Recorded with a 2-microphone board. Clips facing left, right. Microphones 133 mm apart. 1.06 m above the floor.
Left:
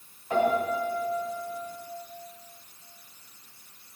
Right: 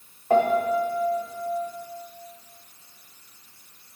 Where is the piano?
55° right (ahead or behind), 1.5 m.